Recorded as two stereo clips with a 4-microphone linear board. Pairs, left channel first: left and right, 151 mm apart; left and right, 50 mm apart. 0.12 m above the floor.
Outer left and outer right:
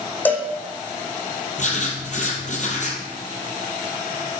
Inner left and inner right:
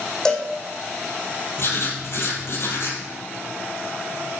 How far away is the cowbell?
About 1.7 m.